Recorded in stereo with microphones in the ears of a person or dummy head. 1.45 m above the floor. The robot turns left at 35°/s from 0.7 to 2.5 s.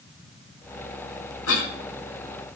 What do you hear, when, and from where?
1.5 s a cough: 70° left (ahead or behind), 1.8 m; by 1.7 s 75° left (ahead or behind), 1.8 m